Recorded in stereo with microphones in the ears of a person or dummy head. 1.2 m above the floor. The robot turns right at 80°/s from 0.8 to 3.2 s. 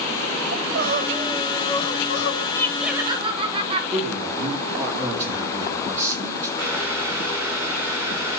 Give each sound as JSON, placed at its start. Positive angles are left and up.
{"t": 0.5, "sound": "crying", "azimuth_deg": -55, "distance_m": 0.9}
{"t": 2.5, "sound": "laughter", "azimuth_deg": 160, "distance_m": 1.0}
{"t": 3.9, "sound": "a man speaking", "side_deg": -30, "distance_m": 3.5}
{"t": 6.6, "sound": "boiling", "side_deg": -85, "distance_m": 7.5}